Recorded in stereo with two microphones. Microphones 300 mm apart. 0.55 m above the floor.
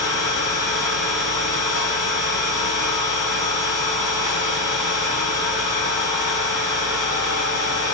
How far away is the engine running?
About 10 m.